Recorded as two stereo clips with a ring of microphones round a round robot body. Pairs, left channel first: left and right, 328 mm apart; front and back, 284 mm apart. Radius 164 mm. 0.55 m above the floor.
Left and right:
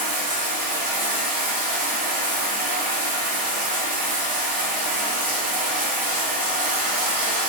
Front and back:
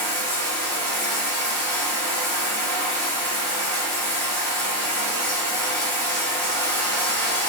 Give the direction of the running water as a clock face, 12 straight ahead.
2 o'clock.